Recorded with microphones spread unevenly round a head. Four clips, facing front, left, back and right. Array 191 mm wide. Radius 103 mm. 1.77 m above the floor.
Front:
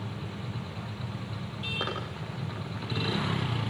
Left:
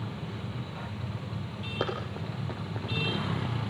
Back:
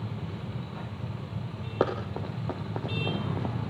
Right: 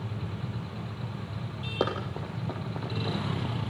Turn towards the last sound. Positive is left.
turn(degrees=180)